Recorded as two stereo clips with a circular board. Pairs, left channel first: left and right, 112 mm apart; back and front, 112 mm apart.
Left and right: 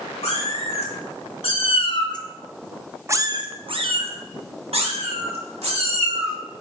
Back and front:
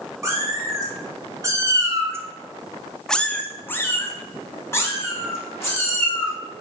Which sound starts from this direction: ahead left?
A cat meowing, at 0.2 s.